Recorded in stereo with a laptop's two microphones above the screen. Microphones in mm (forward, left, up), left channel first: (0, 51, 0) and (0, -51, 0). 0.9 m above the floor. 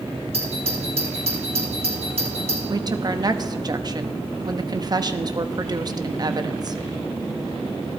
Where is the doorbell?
70° right (ahead or behind), 3.5 m.